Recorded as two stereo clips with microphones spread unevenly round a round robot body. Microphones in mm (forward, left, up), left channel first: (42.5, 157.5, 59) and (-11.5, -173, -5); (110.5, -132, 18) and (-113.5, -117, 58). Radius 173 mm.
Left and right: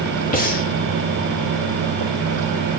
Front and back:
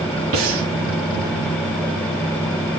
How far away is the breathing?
About 1.7 m.